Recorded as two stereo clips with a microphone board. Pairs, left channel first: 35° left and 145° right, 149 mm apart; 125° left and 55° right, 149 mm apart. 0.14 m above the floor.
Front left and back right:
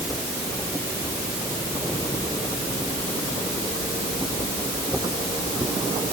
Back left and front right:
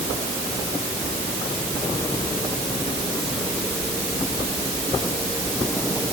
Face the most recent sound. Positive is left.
No sound to turn to.